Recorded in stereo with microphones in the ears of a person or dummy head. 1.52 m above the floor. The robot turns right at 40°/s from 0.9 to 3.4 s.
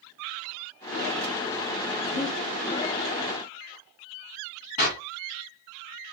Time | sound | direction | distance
2.1 | breathing | 60° left (ahead or behind) | 1.3 m
4.8 | a clap | 40° left (ahead or behind) | 2.5 m